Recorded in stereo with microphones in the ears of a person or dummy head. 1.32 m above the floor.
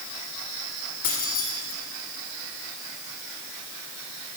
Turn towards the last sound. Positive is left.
turn(degrees=45)  # may be behind; listen again after turning